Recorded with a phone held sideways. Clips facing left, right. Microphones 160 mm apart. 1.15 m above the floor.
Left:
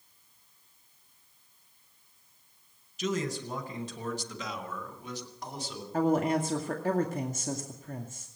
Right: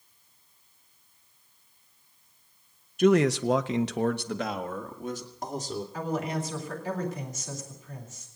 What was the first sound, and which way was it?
A man speaking, 55° right (ahead or behind).